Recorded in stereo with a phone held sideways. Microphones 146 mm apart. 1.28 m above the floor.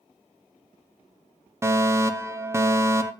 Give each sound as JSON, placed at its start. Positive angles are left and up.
{"t": 1.6, "sound": "a fire alarm", "side_deg": -20, "distance_m": 1.0}